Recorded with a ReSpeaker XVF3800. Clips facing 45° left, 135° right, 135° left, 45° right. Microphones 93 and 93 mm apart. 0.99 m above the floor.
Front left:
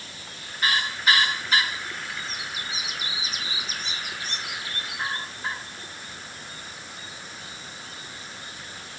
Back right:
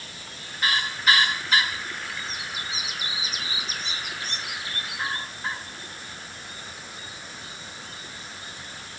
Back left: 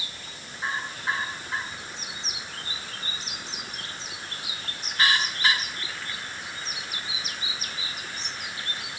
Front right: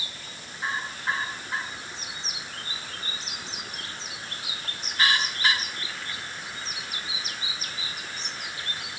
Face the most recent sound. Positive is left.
No sound to turn to.